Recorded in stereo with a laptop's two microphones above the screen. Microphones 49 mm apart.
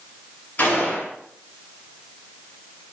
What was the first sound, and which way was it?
A gunshot, 40° left (ahead or behind).